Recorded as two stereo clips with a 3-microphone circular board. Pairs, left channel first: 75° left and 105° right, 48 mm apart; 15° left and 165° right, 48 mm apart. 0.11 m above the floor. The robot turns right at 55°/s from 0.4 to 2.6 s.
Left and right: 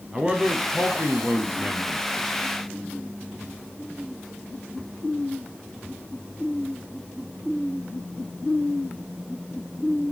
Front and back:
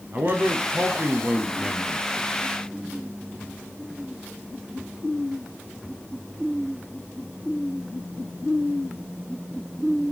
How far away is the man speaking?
About 2.0 m.